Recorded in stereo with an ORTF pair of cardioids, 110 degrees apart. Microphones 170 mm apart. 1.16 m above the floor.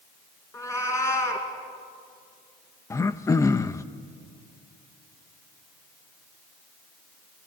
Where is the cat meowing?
20° left, 4.5 m.